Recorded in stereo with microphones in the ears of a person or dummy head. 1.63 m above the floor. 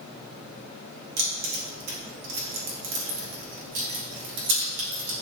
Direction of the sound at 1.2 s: 60° right (ahead or behind).